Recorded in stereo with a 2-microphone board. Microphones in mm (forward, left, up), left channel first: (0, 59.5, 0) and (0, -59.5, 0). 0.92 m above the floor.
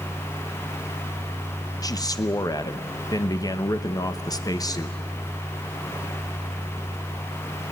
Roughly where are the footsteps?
I don't hear footsteps.